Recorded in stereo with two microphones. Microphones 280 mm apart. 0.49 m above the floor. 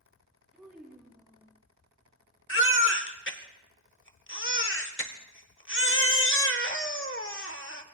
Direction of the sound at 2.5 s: 45° left (ahead or behind).